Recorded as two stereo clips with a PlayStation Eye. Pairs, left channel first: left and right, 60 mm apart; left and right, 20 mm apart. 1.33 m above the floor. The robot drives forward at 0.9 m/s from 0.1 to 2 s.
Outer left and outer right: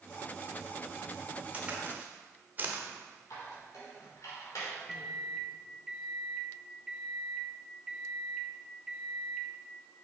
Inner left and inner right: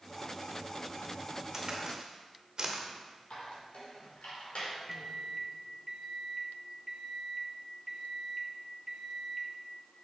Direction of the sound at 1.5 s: 25° right (ahead or behind).